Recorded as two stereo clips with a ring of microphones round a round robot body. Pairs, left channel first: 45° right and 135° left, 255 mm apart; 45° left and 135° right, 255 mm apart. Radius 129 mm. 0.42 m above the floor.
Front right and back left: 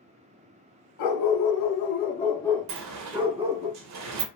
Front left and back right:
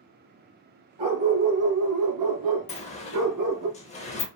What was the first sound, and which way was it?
A dog barking, 65° right.